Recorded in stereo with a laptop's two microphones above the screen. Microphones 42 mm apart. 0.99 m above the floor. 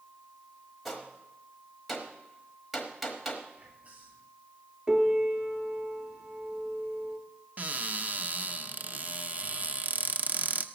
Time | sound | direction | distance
0.8 | a gunshot | centre (ahead or behind) | 1.2 m
3.6 | whispering | 35° right (ahead or behind) | 7 m
4.9 | a piano | 25° right (ahead or behind) | 2.5 m
7.6 | a cupboard door | 40° right (ahead or behind) | 0.7 m